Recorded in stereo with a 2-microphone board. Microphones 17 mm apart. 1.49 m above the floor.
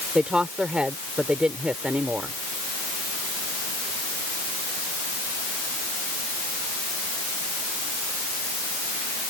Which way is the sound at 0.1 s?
85° right.